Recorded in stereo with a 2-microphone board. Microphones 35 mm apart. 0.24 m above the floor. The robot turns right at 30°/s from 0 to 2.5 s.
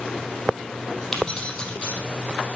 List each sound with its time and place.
1.1 s keys jangling: 10° left (ahead or behind), 4.5 m; by 2.0 s 40° left (ahead or behind), 4.5 m